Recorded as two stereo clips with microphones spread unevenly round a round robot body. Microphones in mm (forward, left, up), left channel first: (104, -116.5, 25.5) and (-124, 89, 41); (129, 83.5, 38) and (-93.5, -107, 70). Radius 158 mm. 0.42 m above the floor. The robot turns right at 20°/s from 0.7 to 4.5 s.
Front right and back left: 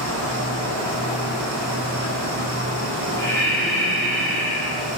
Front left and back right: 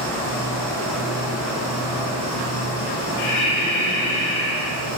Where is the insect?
120° left, 1.0 m; by 5.0 s 165° right, 1.0 m.